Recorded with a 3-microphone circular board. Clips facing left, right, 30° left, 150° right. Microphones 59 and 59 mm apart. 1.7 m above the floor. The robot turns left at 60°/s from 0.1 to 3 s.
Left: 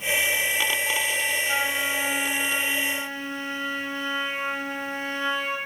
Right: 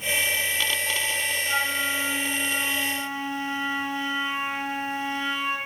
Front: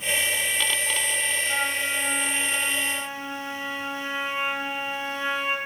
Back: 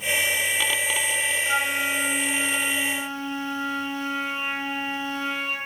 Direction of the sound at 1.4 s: 170° right.